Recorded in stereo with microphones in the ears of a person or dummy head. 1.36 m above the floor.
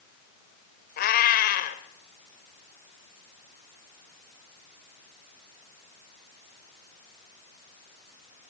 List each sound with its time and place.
1.0 s a cat meowing: 50° left (ahead or behind), 1.9 m